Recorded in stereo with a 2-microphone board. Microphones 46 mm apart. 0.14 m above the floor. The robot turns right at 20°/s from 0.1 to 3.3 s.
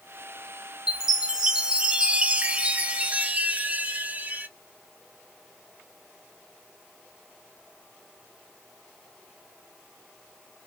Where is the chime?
160° right, 0.6 m; by 4.5 s 115° right, 0.6 m.